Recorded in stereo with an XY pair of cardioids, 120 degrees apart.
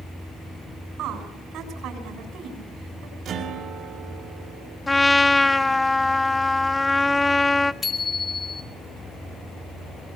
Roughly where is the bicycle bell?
Ahead left.